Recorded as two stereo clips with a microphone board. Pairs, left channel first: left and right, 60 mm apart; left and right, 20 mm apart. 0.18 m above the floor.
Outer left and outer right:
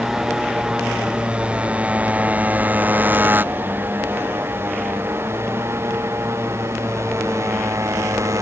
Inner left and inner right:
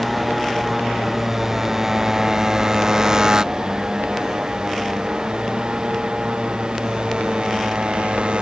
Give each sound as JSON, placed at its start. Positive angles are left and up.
{"t": 0.0, "sound": "a motorcycle", "side_deg": -10}